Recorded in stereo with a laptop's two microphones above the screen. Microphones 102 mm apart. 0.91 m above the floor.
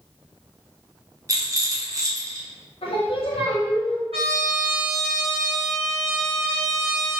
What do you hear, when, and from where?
1.3 s a rattle: 35° right (ahead or behind), 0.5 m
2.8 s singing: 70° left (ahead or behind), 0.8 m
4.1 s a trumpet: 80° right, 1.2 m